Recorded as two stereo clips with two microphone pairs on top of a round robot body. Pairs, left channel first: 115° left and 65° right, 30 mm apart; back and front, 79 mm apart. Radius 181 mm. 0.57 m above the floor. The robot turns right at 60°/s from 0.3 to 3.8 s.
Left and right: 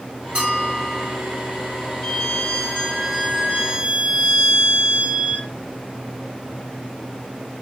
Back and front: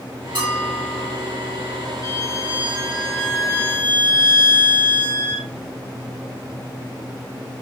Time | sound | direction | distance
0.3 | a bell | 10° right | 1.8 m
2.0 | a violin | 135° left | 1.6 m